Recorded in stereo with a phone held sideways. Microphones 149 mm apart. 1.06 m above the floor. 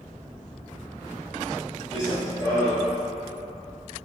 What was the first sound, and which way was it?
Running footsteps, 20° left (ahead or behind).